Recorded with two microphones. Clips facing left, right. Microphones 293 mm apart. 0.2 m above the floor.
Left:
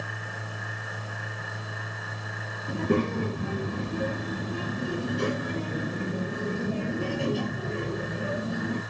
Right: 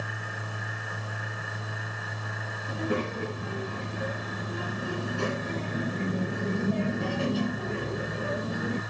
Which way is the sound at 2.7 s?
50° left (ahead or behind).